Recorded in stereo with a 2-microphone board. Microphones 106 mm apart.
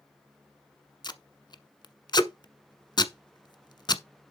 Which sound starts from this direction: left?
Tape being pulled, at 1.0 s.